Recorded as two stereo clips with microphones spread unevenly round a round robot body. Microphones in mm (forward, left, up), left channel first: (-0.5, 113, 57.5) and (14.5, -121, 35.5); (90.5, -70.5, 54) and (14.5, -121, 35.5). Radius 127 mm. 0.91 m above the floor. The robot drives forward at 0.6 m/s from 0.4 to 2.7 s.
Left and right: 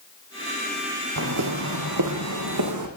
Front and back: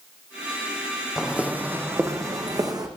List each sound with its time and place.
1.2 s footsteps: 60° right, 3 m; by 2.9 s 100° right, 3.5 m